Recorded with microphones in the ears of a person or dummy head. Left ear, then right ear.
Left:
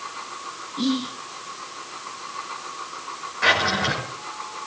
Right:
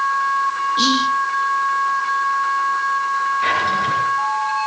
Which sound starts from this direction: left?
A drawer, at 3.4 s.